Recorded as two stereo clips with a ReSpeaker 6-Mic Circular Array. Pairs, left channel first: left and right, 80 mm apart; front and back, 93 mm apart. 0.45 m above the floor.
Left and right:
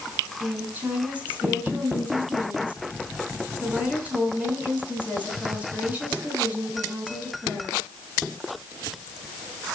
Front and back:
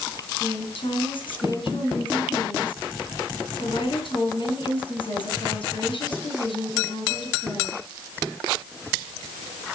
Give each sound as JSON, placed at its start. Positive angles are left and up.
{"t": 0.4, "sound": "a woman speaking", "azimuth_deg": -20, "distance_m": 4.5}